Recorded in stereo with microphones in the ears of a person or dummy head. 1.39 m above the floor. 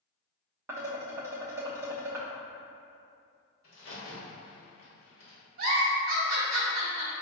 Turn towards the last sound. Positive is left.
turn(degrees=-45)  # may be behind; listen again after turning